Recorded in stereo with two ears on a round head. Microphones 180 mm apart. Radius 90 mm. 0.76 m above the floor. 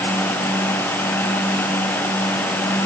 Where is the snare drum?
No snare drum in this recording.